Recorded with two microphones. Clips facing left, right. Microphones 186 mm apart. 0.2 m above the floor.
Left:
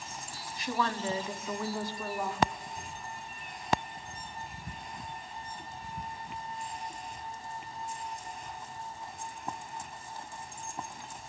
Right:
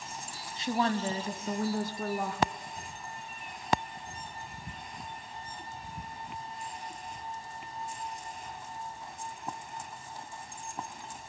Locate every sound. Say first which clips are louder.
0.6 s a woman speaking: right 3 dB; 25° right (ahead or behind), 1.1 m; by 2.5 s 55° right (ahead or behind), 1.8 m